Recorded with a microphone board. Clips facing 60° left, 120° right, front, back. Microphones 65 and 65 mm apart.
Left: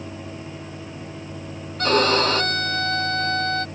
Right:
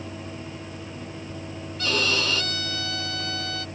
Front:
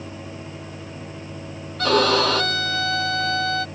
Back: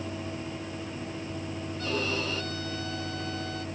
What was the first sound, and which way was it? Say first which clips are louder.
A violin: left 8 dB, front 14 dB; 15° left.